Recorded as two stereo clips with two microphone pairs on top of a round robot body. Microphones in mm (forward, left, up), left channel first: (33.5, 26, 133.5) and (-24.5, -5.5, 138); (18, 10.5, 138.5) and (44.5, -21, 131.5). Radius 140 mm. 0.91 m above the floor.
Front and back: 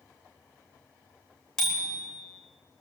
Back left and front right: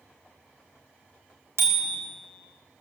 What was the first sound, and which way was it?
A bicycle bell, 55° right.